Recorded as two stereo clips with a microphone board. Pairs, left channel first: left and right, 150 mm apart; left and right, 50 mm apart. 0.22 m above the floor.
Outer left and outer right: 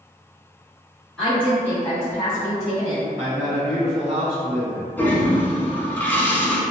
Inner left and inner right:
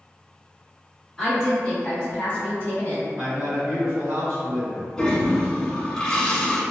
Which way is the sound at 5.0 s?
10° left (ahead or behind).